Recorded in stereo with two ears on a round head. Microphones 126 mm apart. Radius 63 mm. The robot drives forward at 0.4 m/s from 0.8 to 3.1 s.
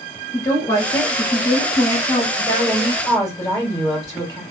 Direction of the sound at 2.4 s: 20° left (ahead or behind).